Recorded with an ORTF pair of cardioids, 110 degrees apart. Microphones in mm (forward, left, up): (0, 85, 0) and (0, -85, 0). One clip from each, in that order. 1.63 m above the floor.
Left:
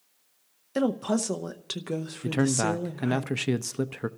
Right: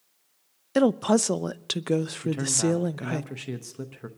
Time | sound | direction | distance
0.8 | a woman speaking | 30° right | 0.6 m
2.2 | a man speaking | 40° left | 0.7 m